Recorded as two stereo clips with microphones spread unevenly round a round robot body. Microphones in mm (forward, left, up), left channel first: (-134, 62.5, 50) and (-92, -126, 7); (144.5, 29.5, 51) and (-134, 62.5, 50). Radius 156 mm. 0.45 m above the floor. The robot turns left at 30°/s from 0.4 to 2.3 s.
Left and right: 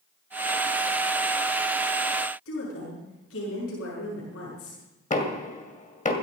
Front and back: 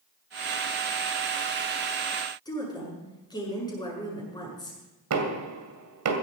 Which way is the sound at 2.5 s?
70° left.